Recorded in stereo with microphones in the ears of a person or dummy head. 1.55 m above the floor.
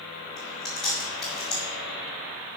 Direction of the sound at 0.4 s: Centre (ahead or behind).